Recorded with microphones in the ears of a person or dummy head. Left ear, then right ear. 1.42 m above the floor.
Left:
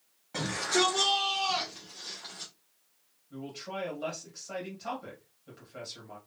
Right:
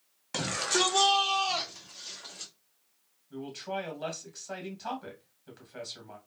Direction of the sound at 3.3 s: 30° right (ahead or behind).